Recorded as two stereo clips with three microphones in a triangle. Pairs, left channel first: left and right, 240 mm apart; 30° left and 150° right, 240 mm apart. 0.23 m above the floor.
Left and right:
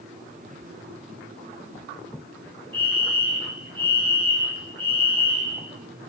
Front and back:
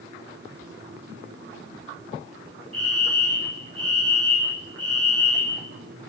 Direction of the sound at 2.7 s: 160° right.